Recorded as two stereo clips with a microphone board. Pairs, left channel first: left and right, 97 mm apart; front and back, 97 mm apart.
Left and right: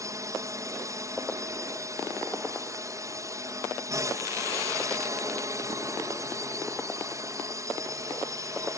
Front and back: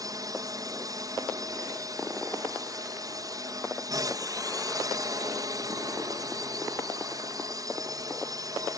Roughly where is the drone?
Behind right.